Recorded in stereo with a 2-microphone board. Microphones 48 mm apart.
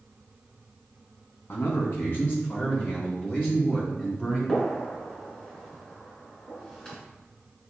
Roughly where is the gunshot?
Left.